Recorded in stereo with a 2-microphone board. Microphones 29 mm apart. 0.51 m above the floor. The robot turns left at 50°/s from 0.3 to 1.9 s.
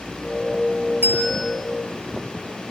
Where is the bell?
80° right, 9.5 m; by 1.4 s 75° right (ahead or behind), 9.5 m.